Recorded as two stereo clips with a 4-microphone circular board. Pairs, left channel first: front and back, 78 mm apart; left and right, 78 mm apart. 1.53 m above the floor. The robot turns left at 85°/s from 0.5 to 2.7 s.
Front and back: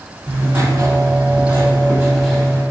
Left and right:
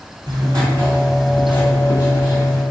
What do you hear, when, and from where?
0.3 s writing: 115° right, 1.9 m; by 2.6 s 65° left, 1.9 m